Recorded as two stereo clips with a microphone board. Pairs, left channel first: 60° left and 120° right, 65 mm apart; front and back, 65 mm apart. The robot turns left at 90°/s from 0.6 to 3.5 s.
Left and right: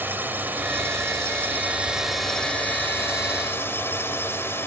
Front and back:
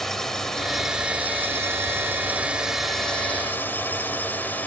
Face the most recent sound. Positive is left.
turn(degrees=45)